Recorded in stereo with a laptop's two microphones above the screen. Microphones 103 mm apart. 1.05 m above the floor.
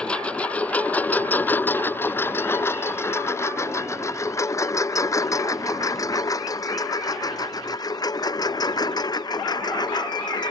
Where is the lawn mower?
10° left (ahead or behind); by 10.5 s 40° left (ahead or behind).